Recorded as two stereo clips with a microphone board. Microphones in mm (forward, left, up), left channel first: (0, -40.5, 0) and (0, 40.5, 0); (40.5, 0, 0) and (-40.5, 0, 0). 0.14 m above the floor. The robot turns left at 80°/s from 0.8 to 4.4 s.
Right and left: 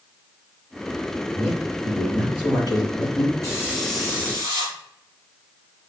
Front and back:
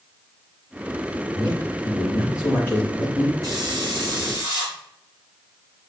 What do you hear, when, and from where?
1.3 s a man speaking: 45° left, 4 m; by 3.3 s 115° right, 4 m
3.4 s a hiss: 135° right, 4 m; by 4.8 s 145° left, 4 m